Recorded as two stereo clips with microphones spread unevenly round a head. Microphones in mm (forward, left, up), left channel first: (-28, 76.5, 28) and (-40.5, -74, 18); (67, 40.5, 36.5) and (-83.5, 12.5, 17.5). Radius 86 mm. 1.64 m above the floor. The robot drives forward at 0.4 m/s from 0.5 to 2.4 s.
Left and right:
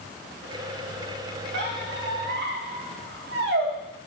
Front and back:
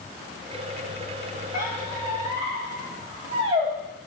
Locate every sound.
1.5 s a squeak: 95° right, 1.7 m; by 3.7 s 105° right, 1.8 m